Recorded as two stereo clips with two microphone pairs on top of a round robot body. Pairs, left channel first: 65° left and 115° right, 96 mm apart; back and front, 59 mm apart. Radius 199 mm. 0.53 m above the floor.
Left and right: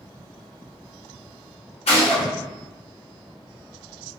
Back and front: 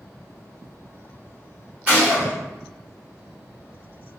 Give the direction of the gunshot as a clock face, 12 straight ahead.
10 o'clock.